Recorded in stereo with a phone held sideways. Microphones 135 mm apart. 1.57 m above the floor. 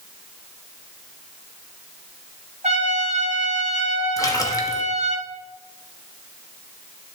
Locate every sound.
2.6 s a trumpet: 55° right (ahead or behind), 2.5 m
4.2 s a splash: 25° left (ahead or behind), 1.1 m